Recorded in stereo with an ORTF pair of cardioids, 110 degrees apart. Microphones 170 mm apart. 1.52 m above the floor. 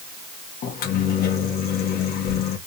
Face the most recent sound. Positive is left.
turn(degrees=65)